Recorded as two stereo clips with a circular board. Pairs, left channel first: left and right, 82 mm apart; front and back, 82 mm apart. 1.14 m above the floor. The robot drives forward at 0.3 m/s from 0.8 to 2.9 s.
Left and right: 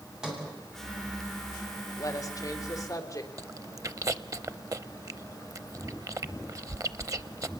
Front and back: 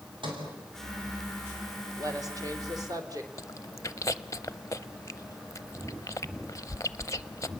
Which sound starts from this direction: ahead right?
Chewing, at 3.4 s.